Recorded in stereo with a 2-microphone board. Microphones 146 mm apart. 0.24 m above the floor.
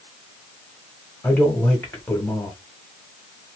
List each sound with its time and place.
1.2 s a man speaking: 10° left (ahead or behind), 0.9 m